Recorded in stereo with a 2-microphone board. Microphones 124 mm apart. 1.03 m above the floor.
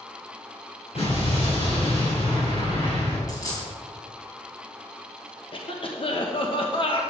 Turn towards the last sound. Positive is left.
turn(degrees=45)  # may be behind; listen again after turning